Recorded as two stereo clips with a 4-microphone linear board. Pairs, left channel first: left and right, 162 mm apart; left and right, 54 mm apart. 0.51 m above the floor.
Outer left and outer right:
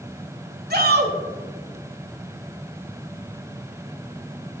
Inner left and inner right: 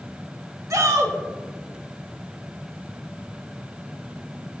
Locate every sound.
0.7 s a shout: 70° right (ahead or behind), 1.8 m